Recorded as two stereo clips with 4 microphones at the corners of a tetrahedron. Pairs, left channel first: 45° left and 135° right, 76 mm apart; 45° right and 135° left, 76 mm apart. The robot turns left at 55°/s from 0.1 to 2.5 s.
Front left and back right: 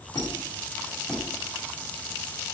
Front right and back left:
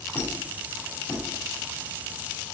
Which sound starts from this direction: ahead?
A squeak, at 0.1 s.